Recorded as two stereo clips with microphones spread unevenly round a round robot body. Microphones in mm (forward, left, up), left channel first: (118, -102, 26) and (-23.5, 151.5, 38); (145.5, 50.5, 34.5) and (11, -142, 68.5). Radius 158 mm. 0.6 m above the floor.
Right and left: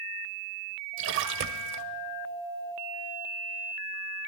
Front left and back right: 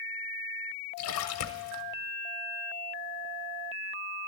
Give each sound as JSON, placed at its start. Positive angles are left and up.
{"t": 1.0, "sound": "a splash", "azimuth_deg": 70, "distance_m": 0.6}